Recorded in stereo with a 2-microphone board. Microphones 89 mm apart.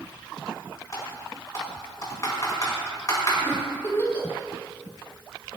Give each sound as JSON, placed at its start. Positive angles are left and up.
{"t": 0.9, "sound": "typing on a keyboard", "side_deg": 40, "distance_m": 4.5}
{"t": 3.5, "sound": "a giggle", "side_deg": 25, "distance_m": 4.0}